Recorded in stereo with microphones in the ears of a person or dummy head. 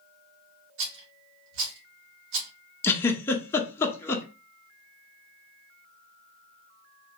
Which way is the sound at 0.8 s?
70° right (ahead or behind).